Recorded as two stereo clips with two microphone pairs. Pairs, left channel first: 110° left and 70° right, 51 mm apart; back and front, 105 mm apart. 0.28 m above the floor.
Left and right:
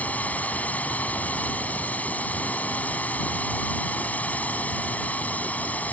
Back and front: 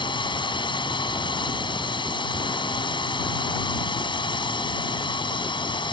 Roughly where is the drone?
Behind.